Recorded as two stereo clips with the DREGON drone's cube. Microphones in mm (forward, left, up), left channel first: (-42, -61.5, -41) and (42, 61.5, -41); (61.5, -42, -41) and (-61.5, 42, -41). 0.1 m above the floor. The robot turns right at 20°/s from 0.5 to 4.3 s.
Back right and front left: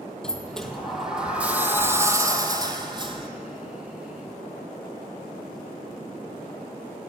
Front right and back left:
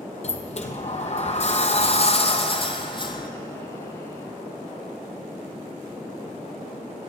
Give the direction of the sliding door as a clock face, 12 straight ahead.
1 o'clock.